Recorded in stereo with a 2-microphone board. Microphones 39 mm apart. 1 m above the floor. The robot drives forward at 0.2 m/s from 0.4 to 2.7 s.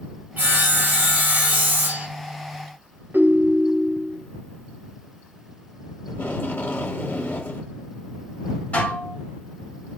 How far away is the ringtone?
About 0.7 m.